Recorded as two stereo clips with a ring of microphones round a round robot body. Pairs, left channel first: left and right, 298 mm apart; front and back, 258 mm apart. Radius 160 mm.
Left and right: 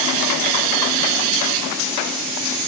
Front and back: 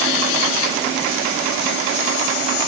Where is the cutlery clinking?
No cutlery clinking in this recording.